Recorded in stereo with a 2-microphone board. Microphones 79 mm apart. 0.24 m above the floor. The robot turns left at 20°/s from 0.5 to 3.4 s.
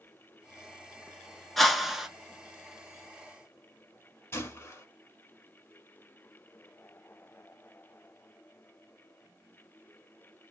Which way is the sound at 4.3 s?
30° left (ahead or behind).